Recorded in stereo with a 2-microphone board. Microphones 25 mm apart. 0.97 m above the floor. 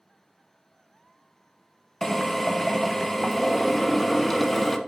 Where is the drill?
5° left (ahead or behind), 0.6 m.